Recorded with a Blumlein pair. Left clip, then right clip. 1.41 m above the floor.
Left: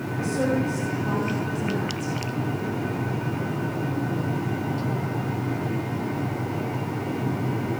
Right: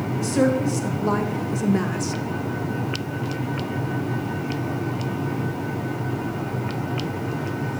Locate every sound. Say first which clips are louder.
0.2 s a woman speaking: right 4 dB; 65° right, 2 m; by 2.1 s 60° right, 0.7 m